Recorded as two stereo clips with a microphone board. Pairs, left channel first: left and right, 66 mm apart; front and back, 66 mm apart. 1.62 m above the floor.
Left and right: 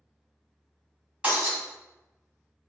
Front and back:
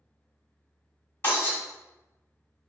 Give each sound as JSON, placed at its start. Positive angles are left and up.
{"t": 1.2, "sound": "breaking glass", "azimuth_deg": -25, "distance_m": 1.8}